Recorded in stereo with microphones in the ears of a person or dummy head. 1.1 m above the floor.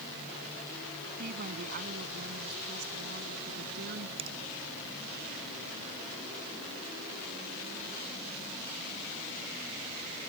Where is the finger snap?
30° right (ahead or behind).